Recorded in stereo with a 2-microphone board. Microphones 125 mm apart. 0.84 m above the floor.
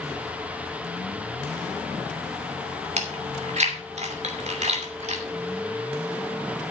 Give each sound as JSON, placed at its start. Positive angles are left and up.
{"t": 3.0, "sound": "chewing", "side_deg": -70, "distance_m": 2.5}